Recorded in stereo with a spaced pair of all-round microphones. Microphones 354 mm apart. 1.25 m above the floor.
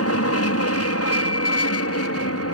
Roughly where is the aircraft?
Left.